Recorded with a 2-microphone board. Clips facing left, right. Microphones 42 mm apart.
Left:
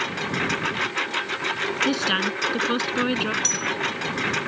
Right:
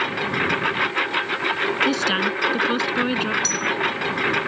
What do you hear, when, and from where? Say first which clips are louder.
0.0 s a lawn mower: right 3 dB; 15° right (ahead or behind)
1.9 s a woman speaking: right 2 dB; centre (ahead or behind)
3.4 s a bell: right 3 dB; 55° left (ahead or behind)